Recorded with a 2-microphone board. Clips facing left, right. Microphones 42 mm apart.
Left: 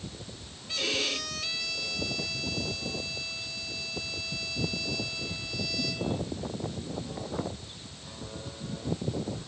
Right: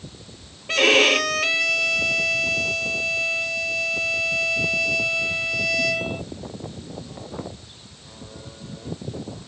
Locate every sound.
0.7 s a violin: 65° right (ahead or behind)